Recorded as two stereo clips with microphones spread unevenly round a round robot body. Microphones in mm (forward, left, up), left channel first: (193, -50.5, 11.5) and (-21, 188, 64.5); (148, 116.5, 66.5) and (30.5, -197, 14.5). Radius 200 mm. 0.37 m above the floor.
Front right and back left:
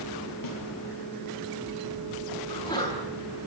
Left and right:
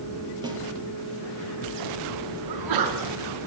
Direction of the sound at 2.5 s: 125° right.